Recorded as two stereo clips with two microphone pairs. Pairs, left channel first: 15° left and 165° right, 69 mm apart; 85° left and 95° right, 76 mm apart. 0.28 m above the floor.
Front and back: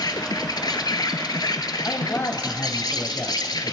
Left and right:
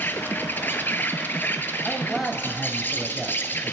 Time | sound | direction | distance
0.0 | an insect | 20° left | 0.8 m
1.9 | a man speaking | 15° right | 1.2 m